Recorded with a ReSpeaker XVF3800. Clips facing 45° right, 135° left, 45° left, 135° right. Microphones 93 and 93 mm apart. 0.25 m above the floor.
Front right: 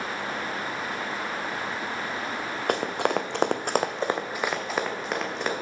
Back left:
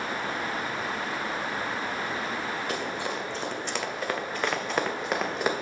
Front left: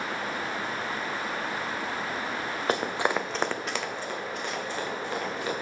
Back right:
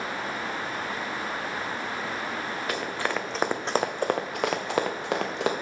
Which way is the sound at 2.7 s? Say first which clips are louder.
Front right 6 dB, front left 4 dB; 15° right.